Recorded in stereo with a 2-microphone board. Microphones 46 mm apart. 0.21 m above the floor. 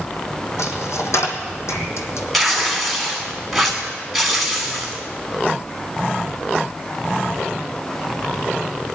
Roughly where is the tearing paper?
Centre.